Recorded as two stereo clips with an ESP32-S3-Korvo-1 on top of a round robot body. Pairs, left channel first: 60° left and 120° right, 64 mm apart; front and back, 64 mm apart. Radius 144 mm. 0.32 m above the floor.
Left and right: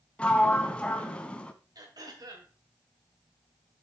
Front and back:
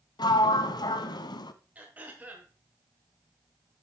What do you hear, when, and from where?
0.2 s a sliding door: 15° right, 0.6 m
1.8 s throat clearing: 115° right, 3 m